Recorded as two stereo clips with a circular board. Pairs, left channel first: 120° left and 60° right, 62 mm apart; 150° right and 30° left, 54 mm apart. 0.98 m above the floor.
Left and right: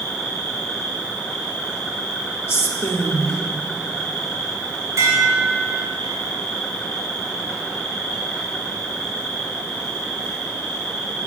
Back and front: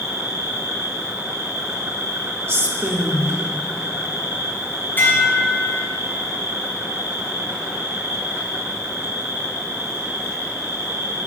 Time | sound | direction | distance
0.0 | an insect | 45° left | 3 m
2.5 | a woman speaking | 65° left | 1.2 m
5.0 | dishes clattering | 95° right | 3 m